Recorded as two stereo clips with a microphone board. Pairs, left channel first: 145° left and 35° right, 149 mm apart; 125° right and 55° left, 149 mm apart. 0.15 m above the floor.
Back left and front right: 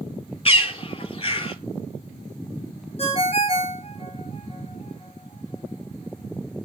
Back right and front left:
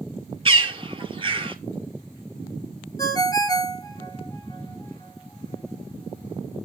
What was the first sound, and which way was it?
A bird, 105° left.